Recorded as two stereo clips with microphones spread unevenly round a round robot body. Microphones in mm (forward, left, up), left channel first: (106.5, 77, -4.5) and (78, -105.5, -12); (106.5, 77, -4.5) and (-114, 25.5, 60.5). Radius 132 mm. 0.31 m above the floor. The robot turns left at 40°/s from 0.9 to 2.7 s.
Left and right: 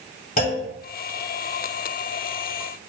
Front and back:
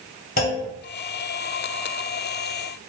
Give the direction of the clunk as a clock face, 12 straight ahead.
10 o'clock.